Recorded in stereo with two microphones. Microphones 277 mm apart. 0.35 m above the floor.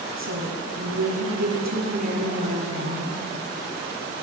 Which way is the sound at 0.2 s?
70° right (ahead or behind).